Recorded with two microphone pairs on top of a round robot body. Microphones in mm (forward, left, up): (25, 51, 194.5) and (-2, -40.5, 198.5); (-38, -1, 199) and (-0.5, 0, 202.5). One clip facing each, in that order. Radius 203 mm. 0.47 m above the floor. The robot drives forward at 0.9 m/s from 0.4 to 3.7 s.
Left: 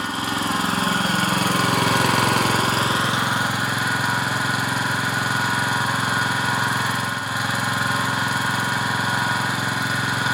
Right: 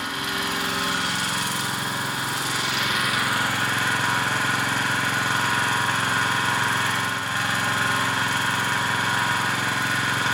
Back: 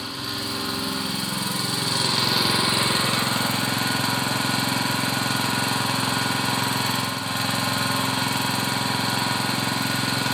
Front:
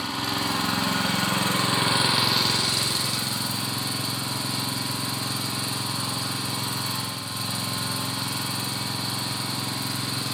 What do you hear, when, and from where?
0.0 s an engine running: 25° left, 1.8 m; by 10.3 s 150° left, 1.5 m